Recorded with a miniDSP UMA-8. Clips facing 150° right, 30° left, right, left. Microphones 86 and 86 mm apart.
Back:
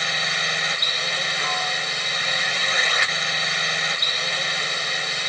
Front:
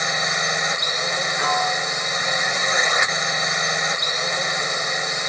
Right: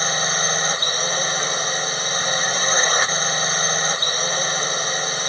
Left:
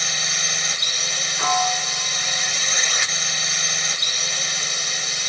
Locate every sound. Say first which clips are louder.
0.0 s a drone: front 3 dB, right 7 dB; 40° right
1.4 s a piano: front 8 dB, left 3 dB; 90° left